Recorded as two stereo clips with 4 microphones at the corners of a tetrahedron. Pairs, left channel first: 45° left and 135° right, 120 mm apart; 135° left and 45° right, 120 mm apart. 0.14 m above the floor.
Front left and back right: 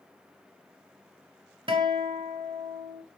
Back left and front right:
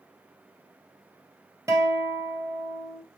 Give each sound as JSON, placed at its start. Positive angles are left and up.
{"t": 1.7, "sound": "a guitar", "azimuth_deg": -105, "distance_m": 1.6}